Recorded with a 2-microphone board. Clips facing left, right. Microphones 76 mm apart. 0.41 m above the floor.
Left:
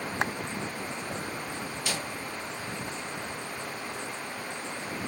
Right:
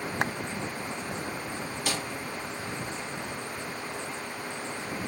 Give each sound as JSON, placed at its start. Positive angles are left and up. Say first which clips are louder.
{"t": 1.9, "sound": "a snare drum", "louder": "right 2 dB", "side_deg": -50, "distance_m": 4.0}